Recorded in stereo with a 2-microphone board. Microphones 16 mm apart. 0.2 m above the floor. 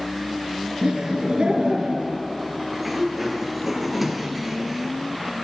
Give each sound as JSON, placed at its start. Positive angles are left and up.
{"t": 0.8, "sound": "laughter", "side_deg": -70, "distance_m": 3.5}
{"t": 2.7, "sound": "a sliding door", "side_deg": -15, "distance_m": 1.4}